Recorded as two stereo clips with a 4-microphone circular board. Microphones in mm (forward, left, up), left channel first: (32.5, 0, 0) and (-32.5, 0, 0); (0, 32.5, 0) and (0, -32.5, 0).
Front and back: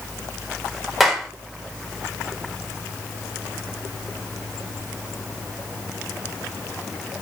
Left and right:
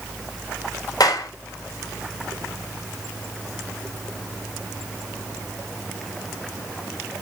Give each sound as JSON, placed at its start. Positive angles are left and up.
{"t": 1.0, "sound": "a clap", "azimuth_deg": 90, "distance_m": 3.0}